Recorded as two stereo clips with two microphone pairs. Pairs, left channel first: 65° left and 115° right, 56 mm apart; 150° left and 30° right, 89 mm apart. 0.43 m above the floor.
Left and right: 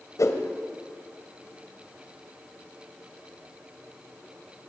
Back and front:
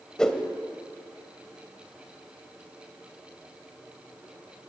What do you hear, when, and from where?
0.2 s a whoosh: 70° left, 1.7 m